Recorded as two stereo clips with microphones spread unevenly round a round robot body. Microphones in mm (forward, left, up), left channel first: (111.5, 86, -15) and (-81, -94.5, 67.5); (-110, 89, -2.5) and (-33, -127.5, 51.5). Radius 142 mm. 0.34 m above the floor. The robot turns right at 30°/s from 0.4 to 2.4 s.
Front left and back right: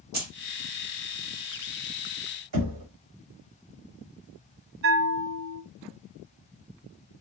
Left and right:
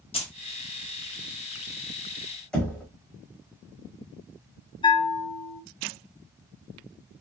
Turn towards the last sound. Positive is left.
turn(degrees=165)